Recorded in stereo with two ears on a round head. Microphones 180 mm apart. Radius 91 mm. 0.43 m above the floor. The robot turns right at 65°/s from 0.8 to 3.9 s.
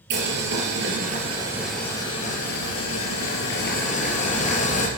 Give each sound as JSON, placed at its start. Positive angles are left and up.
{"t": 0.1, "sound": "boiling", "azimuth_deg": -60, "distance_m": 4.0}